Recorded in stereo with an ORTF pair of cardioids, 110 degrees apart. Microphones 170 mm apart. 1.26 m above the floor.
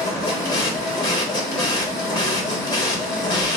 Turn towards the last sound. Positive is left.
turn(degrees=25)